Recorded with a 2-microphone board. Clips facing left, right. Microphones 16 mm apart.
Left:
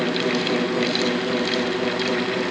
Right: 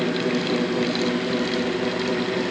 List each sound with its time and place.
Only background noise.